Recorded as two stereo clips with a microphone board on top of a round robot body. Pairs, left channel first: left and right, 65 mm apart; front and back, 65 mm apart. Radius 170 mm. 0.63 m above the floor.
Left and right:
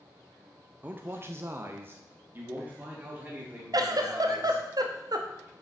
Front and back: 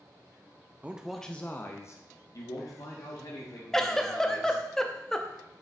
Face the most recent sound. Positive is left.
turn(degrees=-85)